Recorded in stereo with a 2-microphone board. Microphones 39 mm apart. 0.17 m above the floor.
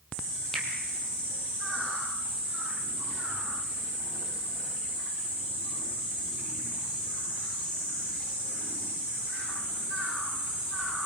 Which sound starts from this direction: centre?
A finger snap, at 0.5 s.